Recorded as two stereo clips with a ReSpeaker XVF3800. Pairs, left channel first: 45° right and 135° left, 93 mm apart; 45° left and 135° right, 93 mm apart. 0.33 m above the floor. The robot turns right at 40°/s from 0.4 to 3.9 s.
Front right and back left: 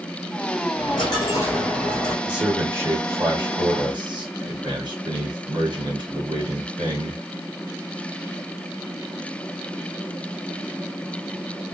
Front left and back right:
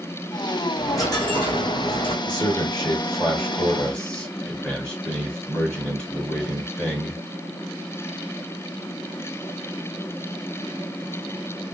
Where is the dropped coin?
15° right, 2 m; by 2.1 s 40° left, 2 m.